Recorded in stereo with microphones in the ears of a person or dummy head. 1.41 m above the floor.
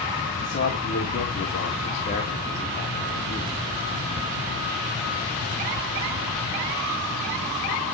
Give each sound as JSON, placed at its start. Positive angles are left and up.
{"t": 0.4, "sound": "a man speaking", "side_deg": 45, "distance_m": 2.5}